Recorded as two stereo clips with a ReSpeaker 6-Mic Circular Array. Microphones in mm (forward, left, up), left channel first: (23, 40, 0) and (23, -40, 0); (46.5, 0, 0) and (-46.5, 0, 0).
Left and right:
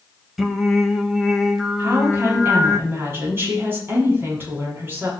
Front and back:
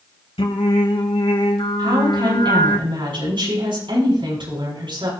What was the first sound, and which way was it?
Singing, straight ahead.